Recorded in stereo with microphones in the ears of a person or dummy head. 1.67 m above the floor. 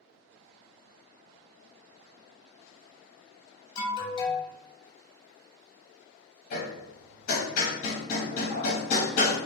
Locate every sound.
3.8 s an alarm: 25° left (ahead or behind), 0.6 m
6.5 s hammering: 45° left (ahead or behind), 0.8 m